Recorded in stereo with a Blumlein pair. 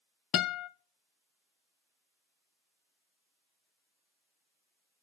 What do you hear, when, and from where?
0.3 s a guitar: 35° left, 0.5 m